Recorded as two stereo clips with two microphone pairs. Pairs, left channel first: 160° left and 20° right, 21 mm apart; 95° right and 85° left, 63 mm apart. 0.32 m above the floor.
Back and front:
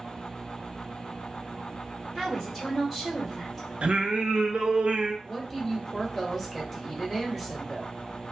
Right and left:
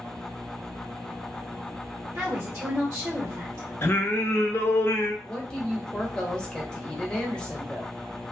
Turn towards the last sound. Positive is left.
turn(degrees=-140)